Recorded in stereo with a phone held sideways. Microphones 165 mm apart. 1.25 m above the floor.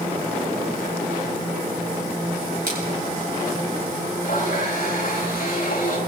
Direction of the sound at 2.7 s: 80° right.